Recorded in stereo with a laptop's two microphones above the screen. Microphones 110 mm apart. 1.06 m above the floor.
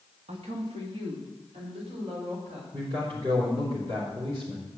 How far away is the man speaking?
About 3.5 m.